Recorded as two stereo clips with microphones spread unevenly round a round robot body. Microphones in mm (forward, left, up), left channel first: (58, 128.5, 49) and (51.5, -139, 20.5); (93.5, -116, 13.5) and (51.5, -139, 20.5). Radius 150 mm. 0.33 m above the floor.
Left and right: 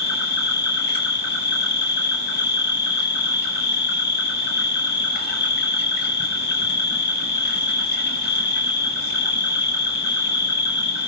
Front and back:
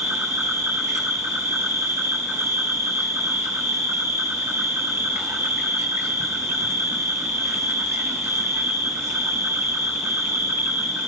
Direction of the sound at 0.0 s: 150° left.